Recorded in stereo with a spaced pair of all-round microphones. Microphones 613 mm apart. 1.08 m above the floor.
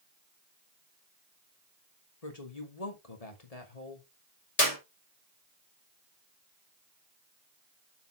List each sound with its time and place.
2.2 s a woman speaking: 75° left (ahead or behind), 2.5 m
4.6 s a clap: 80° left, 4 m